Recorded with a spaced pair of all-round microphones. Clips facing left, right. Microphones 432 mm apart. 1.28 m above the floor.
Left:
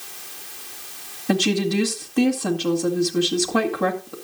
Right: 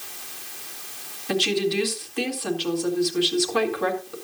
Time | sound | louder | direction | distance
1.3 | a woman speaking | left 3 dB | 60° left (ahead or behind) | 2.0 m